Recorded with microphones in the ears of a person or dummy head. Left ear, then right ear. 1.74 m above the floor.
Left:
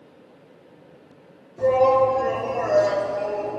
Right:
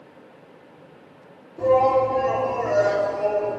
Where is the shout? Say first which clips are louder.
Left 1 dB; 65° left (ahead or behind), 4.5 m; by 3.6 s 35° left (ahead or behind), 4 m.